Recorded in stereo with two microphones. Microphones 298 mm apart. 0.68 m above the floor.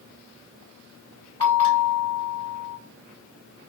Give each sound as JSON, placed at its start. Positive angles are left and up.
{"t": 1.4, "sound": "a bell", "side_deg": -50, "distance_m": 1.5}